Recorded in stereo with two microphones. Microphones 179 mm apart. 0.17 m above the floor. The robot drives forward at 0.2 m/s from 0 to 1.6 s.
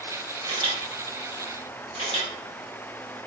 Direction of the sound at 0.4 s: 30° right (ahead or behind).